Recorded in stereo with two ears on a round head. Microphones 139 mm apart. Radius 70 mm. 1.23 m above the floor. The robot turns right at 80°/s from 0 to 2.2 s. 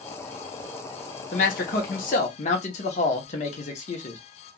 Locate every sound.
1.3 s a man speaking: 55° left, 1.0 m; by 4.2 s 125° left, 1.0 m